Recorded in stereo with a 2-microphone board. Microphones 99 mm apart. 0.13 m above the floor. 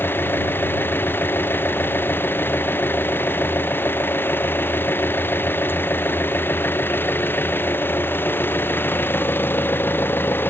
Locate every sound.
0.0 s an engine running: 20° left (ahead or behind)